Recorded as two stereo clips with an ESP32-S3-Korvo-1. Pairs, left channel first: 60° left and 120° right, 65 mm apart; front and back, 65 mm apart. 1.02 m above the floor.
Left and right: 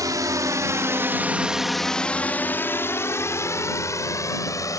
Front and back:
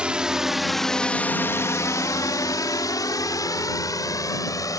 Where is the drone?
105° right; by 4.8 s 25° left.